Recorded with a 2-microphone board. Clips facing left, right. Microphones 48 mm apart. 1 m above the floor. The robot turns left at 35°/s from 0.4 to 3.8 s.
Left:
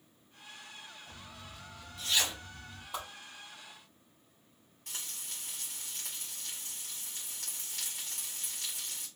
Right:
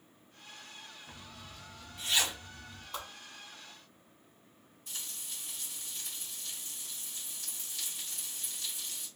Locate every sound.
1.1 s a zipper: 55° right (ahead or behind), 1.8 m; by 2.8 s centre (ahead or behind), 1.8 m
2.9 s a whoosh: 5° left (ahead or behind), 3 m; by 3.1 s 10° left (ahead or behind), 3 m
4.9 s frying: 70° left (ahead or behind), 2.5 m